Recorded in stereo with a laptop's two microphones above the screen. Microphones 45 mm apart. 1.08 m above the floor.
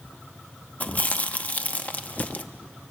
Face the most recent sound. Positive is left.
turn(degrees=35)  # may be behind; listen again after turning